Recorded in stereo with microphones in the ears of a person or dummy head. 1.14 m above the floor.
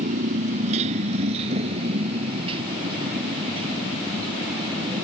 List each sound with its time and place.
0.0 s a motorcycle: 50° right (ahead or behind); by 5.0 s 30° right (ahead or behind)